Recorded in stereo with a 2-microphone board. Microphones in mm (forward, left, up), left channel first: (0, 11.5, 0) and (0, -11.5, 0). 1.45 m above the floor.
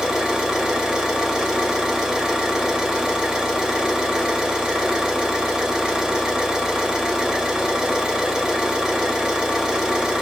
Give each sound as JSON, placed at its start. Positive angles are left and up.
{"t": 0.0, "sound": "an engine running", "side_deg": -50, "distance_m": 1.4}